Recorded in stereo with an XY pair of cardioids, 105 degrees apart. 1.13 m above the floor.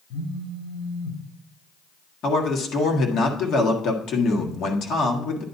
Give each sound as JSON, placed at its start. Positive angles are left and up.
{"t": 0.1, "sound": "a phone buzzing", "azimuth_deg": 65, "distance_m": 3.5}
{"t": 2.2, "sound": "a man speaking", "azimuth_deg": 65, "distance_m": 1.6}